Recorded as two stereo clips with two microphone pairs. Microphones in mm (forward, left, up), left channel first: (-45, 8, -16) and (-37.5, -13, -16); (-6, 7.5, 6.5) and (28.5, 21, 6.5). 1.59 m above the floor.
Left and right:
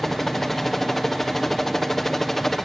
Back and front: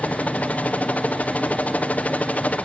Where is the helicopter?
Straight behind.